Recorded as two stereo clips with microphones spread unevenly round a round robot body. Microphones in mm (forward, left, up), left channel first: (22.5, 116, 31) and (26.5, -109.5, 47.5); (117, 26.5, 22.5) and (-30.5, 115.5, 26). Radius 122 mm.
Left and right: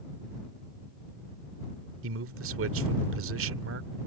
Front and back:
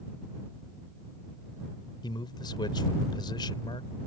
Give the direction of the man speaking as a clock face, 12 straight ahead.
3 o'clock.